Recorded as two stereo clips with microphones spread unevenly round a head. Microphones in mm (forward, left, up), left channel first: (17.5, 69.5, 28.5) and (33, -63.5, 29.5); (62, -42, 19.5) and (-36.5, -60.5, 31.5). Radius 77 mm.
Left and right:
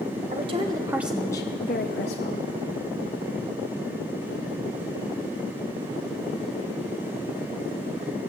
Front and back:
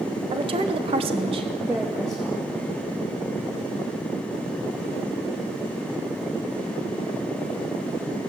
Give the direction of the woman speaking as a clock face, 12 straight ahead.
5 o'clock.